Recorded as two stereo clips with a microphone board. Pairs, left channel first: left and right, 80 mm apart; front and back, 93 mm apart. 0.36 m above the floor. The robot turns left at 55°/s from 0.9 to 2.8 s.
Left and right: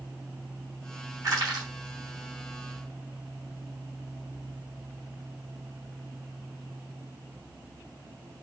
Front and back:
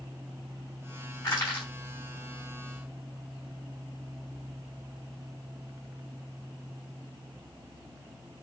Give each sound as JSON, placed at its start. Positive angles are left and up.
{"t": 1.2, "sound": "crushing", "azimuth_deg": -45, "distance_m": 3.5}